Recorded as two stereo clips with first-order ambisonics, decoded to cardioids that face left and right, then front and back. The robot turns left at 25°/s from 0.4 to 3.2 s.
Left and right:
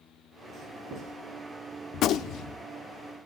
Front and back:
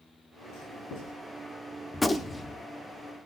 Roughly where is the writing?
Ahead.